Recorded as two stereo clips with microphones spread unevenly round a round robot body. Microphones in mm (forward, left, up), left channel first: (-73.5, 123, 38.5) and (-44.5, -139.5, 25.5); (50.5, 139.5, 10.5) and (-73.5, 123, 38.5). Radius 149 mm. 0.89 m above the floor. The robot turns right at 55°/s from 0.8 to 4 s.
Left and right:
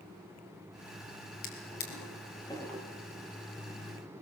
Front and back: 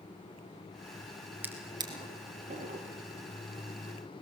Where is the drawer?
115° left, 4.5 m; by 2.8 s 170° right, 4.5 m.